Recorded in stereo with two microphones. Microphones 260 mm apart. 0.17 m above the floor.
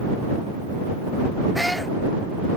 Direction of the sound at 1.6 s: Centre (ahead or behind).